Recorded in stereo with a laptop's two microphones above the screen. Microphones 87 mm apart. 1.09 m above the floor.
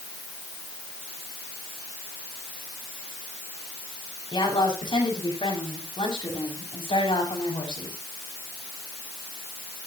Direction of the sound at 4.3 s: 70° left (ahead or behind).